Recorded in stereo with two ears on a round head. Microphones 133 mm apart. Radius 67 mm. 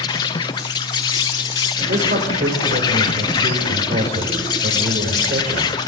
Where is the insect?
30° left (ahead or behind), 1.0 m.